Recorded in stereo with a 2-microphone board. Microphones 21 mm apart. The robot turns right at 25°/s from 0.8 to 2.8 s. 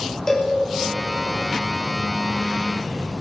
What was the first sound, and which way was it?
A cowbell, 25° left (ahead or behind).